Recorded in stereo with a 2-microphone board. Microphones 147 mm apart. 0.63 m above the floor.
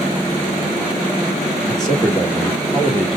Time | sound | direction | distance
1.7 | a man speaking | 5° left (ahead or behind) | 1.7 m